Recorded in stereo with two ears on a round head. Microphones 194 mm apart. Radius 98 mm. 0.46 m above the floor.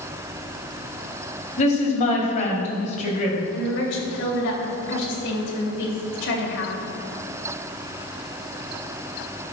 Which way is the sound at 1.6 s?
35° left (ahead or behind).